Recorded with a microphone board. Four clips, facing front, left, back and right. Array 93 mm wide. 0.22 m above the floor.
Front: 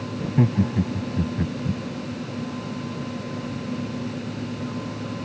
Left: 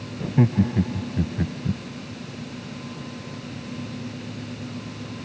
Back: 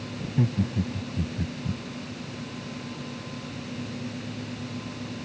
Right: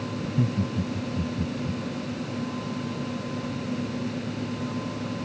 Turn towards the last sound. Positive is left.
turn(degrees=55)